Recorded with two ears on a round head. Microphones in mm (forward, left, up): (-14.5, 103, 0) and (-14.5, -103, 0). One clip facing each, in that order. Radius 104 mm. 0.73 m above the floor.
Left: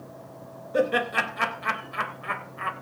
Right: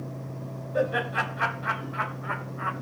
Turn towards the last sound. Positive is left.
turn(degrees=35)  # may be behind; listen again after turning